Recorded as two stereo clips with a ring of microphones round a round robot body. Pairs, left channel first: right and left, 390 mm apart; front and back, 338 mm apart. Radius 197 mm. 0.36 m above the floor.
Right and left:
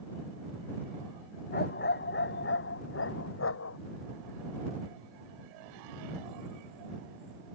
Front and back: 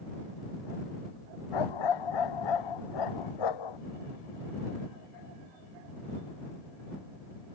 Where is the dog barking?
25° right; by 3.8 s 30° right.